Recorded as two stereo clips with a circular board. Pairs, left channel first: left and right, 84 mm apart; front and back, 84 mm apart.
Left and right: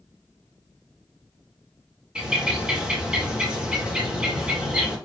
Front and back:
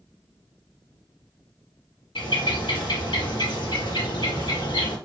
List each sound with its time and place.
2.1 s a bird: 10° right, 1.8 m